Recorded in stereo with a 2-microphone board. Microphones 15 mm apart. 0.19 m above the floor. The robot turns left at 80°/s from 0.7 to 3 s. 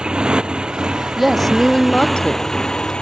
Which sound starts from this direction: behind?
A woman speaking, at 1.2 s.